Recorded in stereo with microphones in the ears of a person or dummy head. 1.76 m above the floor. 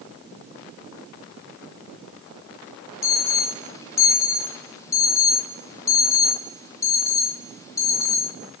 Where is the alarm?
15° left (ahead or behind), 1.3 m.